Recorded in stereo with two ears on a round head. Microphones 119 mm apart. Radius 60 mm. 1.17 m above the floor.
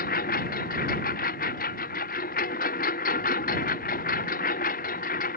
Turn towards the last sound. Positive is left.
turn(degrees=75)  # may be behind; listen again after turning